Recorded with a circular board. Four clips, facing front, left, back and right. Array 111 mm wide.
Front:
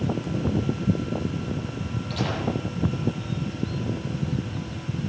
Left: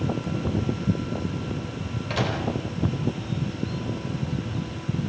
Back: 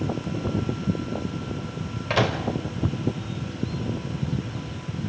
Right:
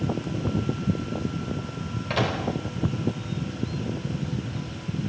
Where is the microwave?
170° right, 4.5 m.